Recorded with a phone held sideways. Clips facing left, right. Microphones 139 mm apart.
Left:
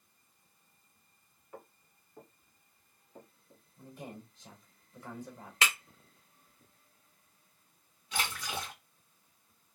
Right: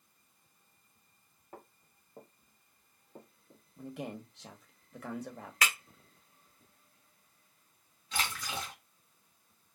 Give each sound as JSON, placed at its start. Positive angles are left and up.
{"t": 1.5, "sound": "footsteps", "side_deg": -45, "distance_m": 1.7}
{"t": 3.8, "sound": "a man speaking", "side_deg": -80, "distance_m": 1.1}
{"t": 5.6, "sound": "breaking glass", "side_deg": 25, "distance_m": 2.0}
{"t": 8.1, "sound": "a splash", "side_deg": 10, "distance_m": 2.0}